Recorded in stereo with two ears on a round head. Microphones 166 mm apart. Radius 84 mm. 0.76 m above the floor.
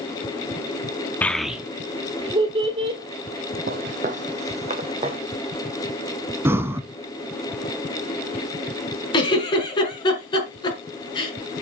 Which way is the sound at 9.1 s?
30° left (ahead or behind).